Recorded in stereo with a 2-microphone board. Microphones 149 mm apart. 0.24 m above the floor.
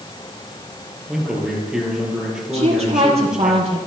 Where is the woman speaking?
45° right (ahead or behind), 6.5 m.